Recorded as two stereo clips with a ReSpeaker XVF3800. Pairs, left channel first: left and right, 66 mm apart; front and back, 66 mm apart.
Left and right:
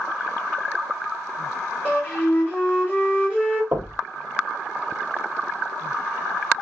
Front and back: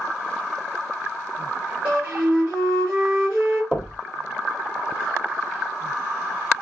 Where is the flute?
135° left, 1.9 m.